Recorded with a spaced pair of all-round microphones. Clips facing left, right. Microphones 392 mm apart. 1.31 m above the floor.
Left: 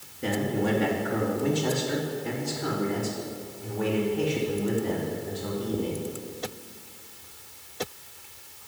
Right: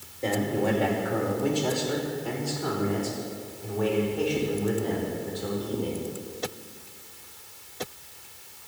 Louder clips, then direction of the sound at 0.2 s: Right 1 dB; 25° left (ahead or behind).